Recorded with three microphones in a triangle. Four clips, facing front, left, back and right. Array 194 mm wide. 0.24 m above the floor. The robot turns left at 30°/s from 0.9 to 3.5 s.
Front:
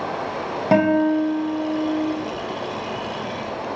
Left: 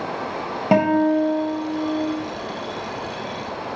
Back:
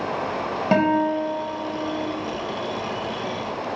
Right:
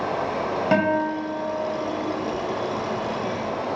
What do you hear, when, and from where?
0.7 s a guitar: 75° left, 1.5 m; by 2.1 s 40° left, 1.5 m